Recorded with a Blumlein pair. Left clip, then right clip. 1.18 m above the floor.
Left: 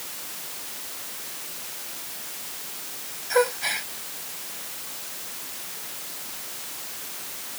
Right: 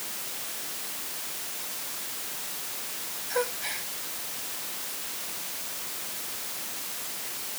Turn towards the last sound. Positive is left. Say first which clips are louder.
# left 8 dB
turn(degrees=25)